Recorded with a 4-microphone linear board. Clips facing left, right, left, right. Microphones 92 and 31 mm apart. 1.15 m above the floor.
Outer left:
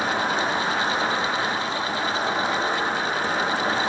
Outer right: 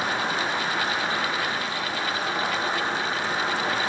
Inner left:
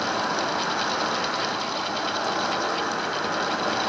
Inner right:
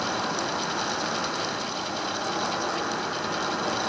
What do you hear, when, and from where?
0.0 s an insect: 50° left (ahead or behind), 1.4 m